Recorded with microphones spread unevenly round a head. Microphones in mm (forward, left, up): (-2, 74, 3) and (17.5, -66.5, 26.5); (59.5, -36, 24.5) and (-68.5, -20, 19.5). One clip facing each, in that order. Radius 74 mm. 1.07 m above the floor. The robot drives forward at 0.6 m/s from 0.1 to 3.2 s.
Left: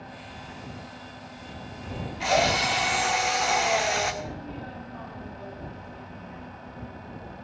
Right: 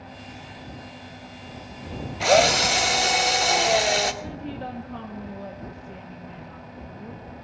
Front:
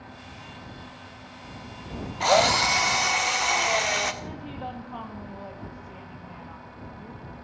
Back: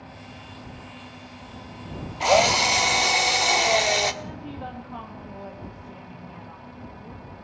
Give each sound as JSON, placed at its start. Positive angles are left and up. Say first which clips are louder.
{"t": 2.2, "sound": "a drill", "louder": "right 5 dB, back 1 dB", "azimuth_deg": -105, "distance_m": 1.1}
{"t": 4.2, "sound": "a woman speaking", "louder": "right 4 dB, even", "azimuth_deg": -95, "distance_m": 2.0}